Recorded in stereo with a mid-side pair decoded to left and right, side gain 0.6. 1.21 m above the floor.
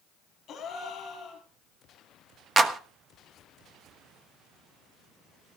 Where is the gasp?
45° left, 4 m.